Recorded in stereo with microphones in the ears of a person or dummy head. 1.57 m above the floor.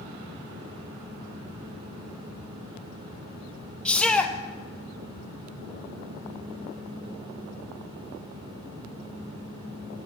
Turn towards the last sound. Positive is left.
turn(degrees=5)  # may be behind; listen again after turning